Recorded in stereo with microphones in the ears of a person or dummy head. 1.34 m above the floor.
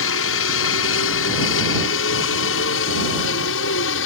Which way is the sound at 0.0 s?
70° left (ahead or behind).